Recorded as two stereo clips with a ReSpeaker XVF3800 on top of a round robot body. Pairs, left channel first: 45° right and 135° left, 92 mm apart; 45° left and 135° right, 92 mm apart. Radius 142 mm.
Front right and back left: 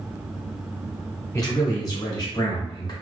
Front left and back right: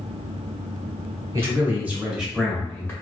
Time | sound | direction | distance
1.3 | a man speaking | 90° right | 1.2 m